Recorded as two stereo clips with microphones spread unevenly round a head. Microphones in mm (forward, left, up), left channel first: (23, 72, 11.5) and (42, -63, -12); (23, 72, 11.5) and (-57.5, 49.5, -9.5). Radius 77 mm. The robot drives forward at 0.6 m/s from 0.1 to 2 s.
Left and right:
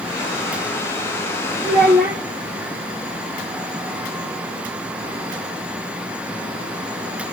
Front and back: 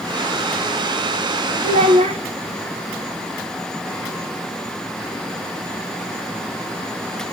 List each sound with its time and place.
1.6 s a child speaking: 165° right, 0.6 m